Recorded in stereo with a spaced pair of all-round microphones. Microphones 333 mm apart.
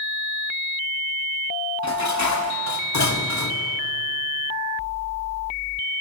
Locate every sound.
1.8 s dishes clattering: 55° left (ahead or behind), 0.7 m